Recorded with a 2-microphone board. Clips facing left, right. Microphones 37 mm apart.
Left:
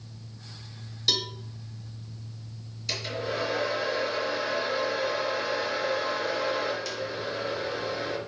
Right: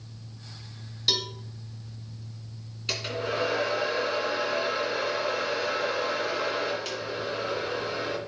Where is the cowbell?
5° right (ahead or behind), 1.1 m.